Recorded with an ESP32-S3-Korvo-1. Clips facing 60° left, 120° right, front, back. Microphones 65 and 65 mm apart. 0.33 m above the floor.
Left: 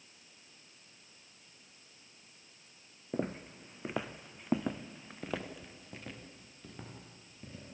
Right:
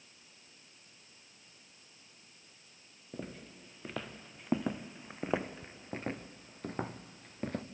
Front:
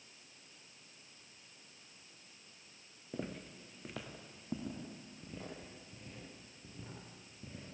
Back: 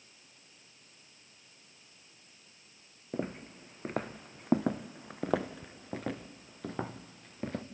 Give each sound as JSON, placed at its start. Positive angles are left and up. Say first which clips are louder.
{"t": 3.1, "sound": "footsteps", "louder": "left 8 dB, back 6 dB", "azimuth_deg": 115, "distance_m": 1.5}